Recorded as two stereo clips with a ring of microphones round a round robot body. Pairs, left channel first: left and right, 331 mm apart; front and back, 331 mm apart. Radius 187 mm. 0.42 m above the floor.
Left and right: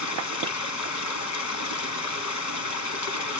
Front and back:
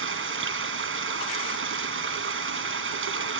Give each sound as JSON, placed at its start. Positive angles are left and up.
{"t": 0.0, "sound": "running water", "azimuth_deg": 125, "distance_m": 3.0}